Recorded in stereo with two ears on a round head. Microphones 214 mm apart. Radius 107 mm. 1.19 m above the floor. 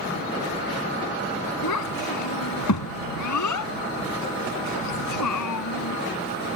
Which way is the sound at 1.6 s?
85° left.